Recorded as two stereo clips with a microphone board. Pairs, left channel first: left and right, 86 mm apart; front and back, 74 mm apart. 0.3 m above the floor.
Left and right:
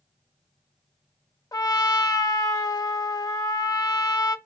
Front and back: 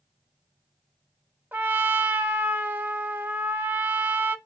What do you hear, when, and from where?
1.5 s a trumpet: 120° left, 0.6 m